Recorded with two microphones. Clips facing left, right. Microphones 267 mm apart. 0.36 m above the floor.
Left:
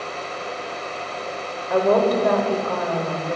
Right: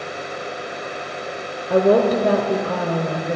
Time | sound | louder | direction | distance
1.7 | a woman speaking | right 3 dB | 30° right (ahead or behind) | 1.2 m